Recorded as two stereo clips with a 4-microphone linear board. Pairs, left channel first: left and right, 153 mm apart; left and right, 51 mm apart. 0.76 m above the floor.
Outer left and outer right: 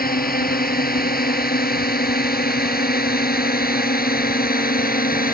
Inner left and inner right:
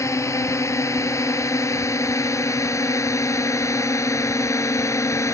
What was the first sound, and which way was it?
A drone, 80° left.